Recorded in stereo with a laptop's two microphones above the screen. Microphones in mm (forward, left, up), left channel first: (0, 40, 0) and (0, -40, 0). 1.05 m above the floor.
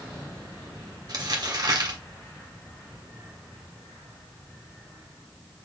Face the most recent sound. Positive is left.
turn(degrees=-55)  # may be behind; listen again after turning